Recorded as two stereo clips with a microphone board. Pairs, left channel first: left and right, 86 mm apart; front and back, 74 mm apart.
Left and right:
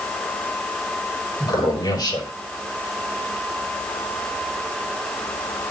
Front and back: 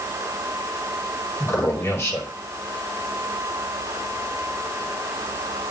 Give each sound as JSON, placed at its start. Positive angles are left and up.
{"t": 1.4, "sound": "a man speaking", "azimuth_deg": 55, "distance_m": 4.5}